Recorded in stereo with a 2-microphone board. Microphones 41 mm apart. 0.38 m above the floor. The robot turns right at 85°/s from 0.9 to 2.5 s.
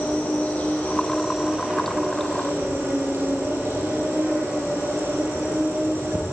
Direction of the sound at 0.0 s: 150° left.